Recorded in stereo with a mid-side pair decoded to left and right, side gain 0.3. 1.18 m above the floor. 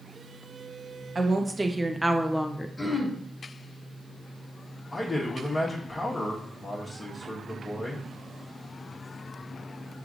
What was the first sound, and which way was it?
A woman speaking, 40° right.